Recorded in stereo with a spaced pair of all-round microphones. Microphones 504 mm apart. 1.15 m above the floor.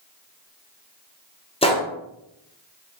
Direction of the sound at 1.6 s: 10° left (ahead or behind).